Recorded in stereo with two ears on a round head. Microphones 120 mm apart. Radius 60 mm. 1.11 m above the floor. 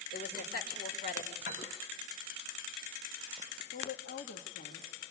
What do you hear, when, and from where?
0.1 s a woman speaking: 50° left (ahead or behind), 4 m
1.4 s a piano: 60° left (ahead or behind), 6 m
3.7 s a woman speaking: 75° left (ahead or behind), 1.6 m